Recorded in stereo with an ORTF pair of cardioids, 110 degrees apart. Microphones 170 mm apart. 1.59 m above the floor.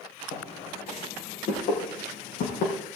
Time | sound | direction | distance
0.3 | footsteps | 55° left | 5.5 m